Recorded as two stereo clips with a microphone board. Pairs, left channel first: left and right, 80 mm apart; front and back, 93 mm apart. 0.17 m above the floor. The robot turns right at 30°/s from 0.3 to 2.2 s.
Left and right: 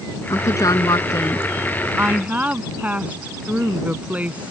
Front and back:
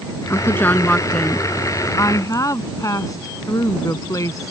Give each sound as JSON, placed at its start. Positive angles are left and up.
{"t": 0.3, "sound": "a woman speaking", "azimuth_deg": 55}
{"t": 2.0, "sound": "a woman speaking", "azimuth_deg": -35}